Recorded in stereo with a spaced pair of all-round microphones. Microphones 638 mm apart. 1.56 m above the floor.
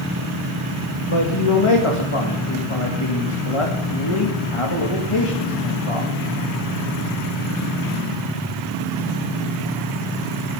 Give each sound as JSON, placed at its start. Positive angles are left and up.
{"t": 1.1, "sound": "a man speaking", "side_deg": 50, "distance_m": 1.9}